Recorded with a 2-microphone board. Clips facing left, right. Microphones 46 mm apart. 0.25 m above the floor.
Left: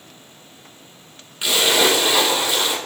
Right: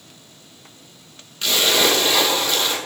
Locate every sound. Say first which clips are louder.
1.4 s a splash: left 1 dB; 10° left (ahead or behind), 1.5 m